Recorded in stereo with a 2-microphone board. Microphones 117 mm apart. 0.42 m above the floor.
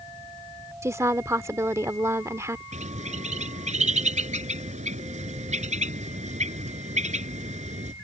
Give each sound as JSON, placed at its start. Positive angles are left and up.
{"t": 0.8, "sound": "a woman speaking", "side_deg": -25}
{"t": 2.7, "sound": "a bird", "side_deg": -80}